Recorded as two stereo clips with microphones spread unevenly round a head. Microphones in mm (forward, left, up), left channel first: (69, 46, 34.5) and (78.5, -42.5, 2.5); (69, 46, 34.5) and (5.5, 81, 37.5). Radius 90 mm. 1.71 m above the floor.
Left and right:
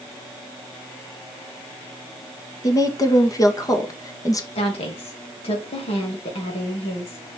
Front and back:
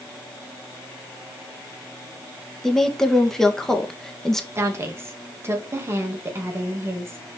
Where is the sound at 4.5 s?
95° left, 2.5 m.